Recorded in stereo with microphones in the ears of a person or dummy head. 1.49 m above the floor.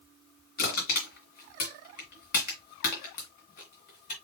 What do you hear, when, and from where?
0.6 s crushing: 50° left (ahead or behind), 2 m